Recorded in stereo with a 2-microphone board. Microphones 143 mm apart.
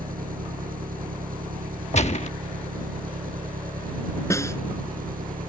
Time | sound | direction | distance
0.0 | an engine running | 80° right | ?
1.9 | a gunshot | 50° left (ahead or behind) | ?
4.3 | a snare drum | 20° left (ahead or behind) | ?